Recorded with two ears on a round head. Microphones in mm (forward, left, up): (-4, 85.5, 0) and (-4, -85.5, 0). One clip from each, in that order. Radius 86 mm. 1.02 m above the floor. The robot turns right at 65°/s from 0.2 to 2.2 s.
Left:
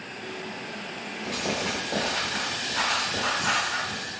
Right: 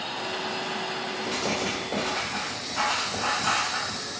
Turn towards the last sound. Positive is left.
turn(degrees=10)  # may be behind; listen again after turning